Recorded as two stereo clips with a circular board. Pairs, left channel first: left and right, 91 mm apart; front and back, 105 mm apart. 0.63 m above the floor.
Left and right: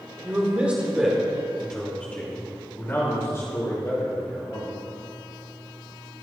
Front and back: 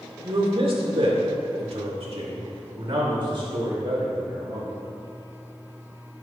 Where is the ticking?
I don't hear ticking.